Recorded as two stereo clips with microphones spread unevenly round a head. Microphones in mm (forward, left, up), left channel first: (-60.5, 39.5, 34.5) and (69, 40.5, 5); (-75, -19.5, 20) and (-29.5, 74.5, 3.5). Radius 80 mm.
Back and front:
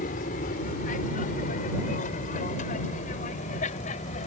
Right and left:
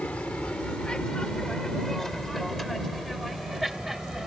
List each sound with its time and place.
0.0 s an aircraft: 165° left; by 4.3 s 150° left